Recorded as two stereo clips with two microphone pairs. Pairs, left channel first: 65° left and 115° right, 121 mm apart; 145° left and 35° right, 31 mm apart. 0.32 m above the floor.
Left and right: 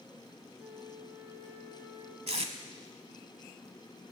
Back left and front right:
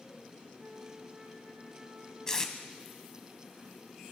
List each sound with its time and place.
0.6 s a flute: 55° right, 5.5 m
2.3 s tape being pulled: 140° right, 0.8 m